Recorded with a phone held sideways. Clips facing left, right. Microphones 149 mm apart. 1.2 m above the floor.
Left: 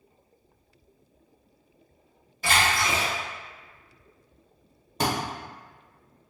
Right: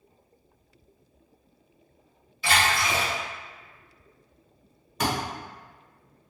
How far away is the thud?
About 1.0 m.